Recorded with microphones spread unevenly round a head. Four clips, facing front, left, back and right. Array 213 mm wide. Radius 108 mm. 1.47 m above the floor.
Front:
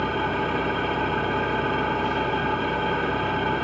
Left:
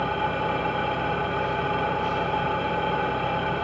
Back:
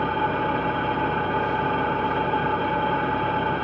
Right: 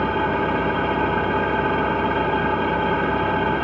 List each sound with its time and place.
0.0 s an engine running: 95° right, 1.4 m